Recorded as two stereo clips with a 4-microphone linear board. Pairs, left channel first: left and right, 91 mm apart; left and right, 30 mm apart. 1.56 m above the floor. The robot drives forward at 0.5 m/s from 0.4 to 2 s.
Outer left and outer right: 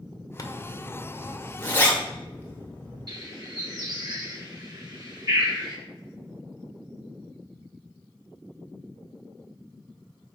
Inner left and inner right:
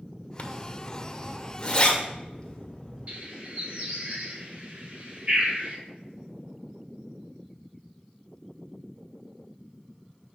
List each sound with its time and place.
0.4 s a zipper: 40° left (ahead or behind), 0.6 m; by 3.1 s 20° left (ahead or behind), 1.3 m
3.1 s a bird: 45° right (ahead or behind), 1.8 m